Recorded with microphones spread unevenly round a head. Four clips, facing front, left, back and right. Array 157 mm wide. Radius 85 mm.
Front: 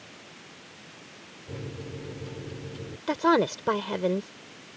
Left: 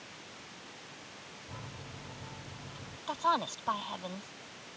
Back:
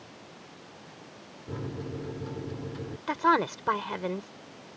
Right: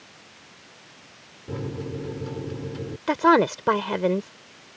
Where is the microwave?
110° right.